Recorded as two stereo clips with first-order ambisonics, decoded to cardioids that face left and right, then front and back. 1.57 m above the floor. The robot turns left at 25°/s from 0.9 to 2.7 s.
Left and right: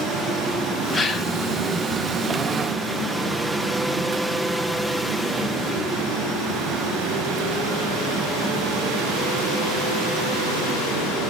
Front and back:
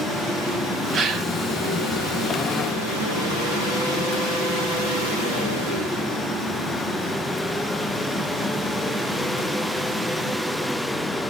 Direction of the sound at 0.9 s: 160° left.